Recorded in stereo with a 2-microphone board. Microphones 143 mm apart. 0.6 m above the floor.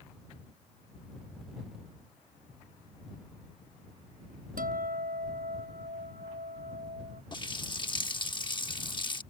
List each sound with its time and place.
4.6 s a guitar: 85° right
7.3 s a running tap: 35° left (ahead or behind)